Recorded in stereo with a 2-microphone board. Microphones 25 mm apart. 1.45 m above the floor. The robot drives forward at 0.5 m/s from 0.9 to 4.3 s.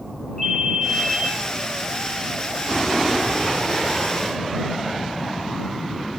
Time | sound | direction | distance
0.4 | a ringtone | centre (ahead or behind) | 5 m